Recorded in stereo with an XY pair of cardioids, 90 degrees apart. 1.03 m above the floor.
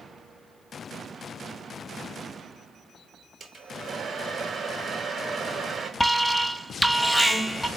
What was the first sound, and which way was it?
A hair dryer, 55° right.